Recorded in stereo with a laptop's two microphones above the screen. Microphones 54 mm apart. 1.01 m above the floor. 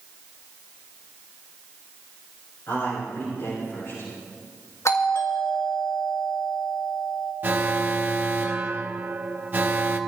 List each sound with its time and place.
2.7 s a man speaking: 70° left (ahead or behind), 7 m
4.8 s a doorbell: 65° left (ahead or behind), 2.5 m
7.4 s an alarm: 40° right (ahead or behind), 0.9 m